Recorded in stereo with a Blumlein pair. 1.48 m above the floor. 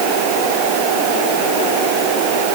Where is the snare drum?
No snare drum in this recording.